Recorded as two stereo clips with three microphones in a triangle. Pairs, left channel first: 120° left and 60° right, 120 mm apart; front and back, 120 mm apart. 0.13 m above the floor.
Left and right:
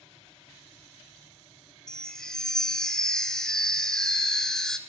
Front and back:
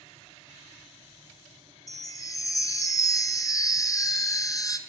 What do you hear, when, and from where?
1.9 s a chime: 40° left, 0.7 m